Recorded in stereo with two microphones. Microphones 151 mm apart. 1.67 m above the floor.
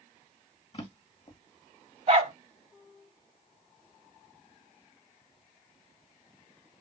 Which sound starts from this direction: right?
A dog barking, at 2.1 s.